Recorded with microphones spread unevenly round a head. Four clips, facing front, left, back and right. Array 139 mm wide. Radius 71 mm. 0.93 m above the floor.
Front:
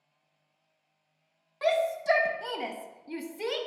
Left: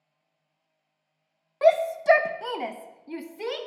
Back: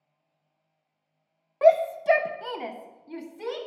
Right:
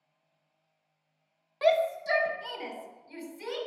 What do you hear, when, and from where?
1.6 s a shout: 150° left, 0.5 m; by 3.6 s 65° left, 1.1 m